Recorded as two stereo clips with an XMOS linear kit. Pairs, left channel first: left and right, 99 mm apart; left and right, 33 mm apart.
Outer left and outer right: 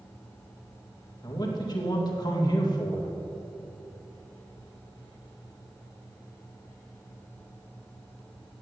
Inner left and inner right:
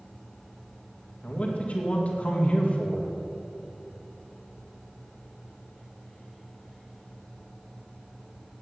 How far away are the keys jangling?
I don't hear keys jangling.